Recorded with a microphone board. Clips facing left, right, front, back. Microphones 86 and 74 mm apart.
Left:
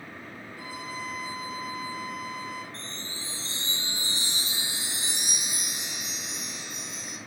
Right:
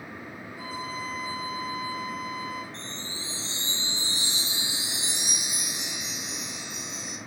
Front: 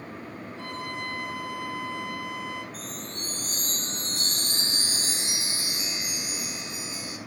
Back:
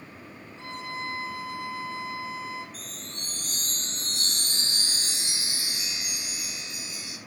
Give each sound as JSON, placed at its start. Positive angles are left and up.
{"t": 0.6, "sound": "a violin", "azimuth_deg": -30, "distance_m": 4.0}
{"t": 2.7, "sound": "a chime", "azimuth_deg": 45, "distance_m": 4.5}